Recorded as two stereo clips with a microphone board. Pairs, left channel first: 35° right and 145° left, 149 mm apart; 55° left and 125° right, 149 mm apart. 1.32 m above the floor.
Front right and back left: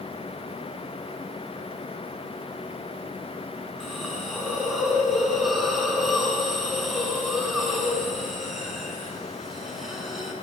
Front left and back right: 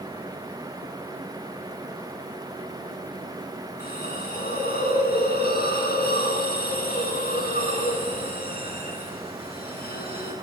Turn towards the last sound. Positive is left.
turn(degrees=55)